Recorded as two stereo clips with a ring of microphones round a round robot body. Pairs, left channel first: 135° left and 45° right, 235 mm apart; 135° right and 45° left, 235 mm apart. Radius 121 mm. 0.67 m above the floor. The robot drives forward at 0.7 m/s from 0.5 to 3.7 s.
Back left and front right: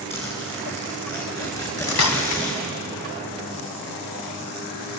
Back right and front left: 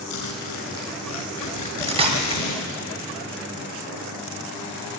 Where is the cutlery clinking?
105° left, 3 m; by 2.4 s 115° left, 3.5 m.